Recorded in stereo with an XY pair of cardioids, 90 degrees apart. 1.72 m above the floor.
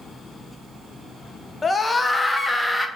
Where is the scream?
35° left, 1.2 m; by 2.9 s 15° left, 1.7 m.